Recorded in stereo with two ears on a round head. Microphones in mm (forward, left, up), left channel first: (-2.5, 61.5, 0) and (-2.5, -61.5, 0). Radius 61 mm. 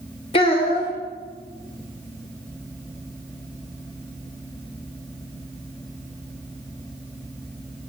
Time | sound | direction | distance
0.3 | a child speaking | 40° left (ahead or behind) | 1.1 m